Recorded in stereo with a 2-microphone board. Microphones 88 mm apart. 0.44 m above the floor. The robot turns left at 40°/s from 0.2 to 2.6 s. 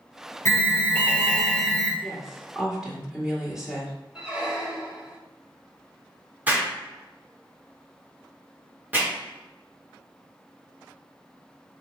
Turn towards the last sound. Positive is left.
turn(degrees=-20)  # may be behind; listen again after turning